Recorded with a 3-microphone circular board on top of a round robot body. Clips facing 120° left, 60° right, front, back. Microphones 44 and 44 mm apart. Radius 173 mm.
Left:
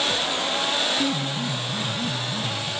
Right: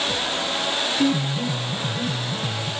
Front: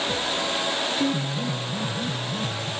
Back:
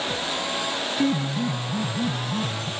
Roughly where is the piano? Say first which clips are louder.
Right 3 dB, back 2 dB; behind right.